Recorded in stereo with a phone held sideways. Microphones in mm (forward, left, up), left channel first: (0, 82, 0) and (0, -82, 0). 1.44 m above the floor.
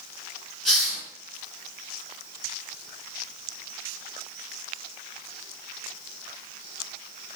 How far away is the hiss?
About 3.5 m.